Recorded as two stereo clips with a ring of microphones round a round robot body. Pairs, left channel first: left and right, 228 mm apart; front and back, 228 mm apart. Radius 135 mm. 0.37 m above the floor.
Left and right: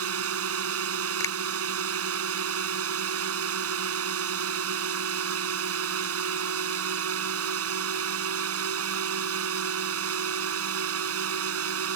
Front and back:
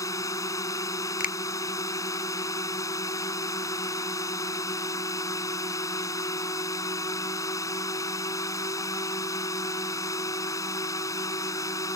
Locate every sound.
0.0 s a drone: 80° right
1.2 s a finger snap: 20° left